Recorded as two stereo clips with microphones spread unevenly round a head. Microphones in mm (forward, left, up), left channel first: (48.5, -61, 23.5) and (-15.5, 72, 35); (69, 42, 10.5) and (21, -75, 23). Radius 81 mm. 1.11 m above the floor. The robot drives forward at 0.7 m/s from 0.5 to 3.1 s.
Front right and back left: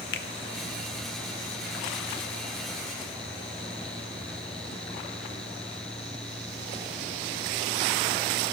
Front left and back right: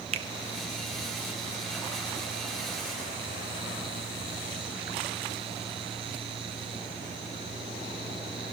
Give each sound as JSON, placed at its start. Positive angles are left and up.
{"t": 0.1, "sound": "a finger snap", "azimuth_deg": -70, "distance_m": 1.0}